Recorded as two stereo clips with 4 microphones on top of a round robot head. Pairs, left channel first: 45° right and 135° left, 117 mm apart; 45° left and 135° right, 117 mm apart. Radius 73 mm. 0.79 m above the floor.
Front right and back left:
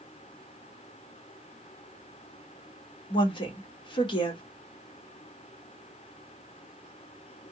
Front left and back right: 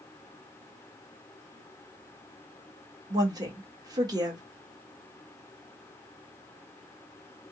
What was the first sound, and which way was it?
A woman speaking, 85° right.